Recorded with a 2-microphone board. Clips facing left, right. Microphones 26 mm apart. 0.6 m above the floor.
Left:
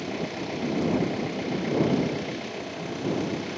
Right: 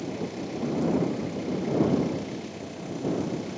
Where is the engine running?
25° left (ahead or behind).